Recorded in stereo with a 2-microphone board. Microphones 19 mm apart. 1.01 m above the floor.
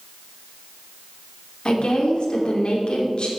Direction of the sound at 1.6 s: 60° left (ahead or behind).